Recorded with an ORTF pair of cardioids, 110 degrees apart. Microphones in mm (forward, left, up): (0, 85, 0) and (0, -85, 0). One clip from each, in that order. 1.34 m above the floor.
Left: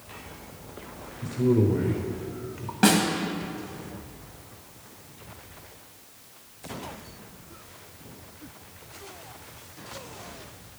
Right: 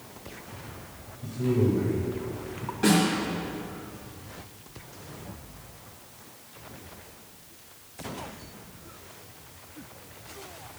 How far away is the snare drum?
About 1.5 m.